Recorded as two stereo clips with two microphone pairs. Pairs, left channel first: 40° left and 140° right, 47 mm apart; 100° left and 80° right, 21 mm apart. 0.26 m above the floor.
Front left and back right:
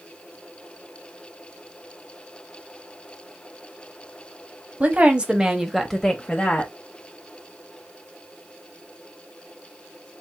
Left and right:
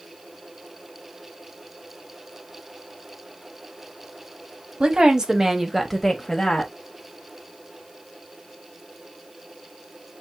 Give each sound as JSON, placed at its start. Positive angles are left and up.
{"t": 4.8, "sound": "a woman speaking", "azimuth_deg": -100, "distance_m": 1.3}